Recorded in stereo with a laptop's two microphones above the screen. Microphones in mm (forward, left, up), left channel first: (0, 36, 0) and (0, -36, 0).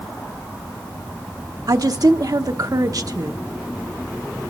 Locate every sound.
1.7 s a woman speaking: 55° right (ahead or behind), 1.0 m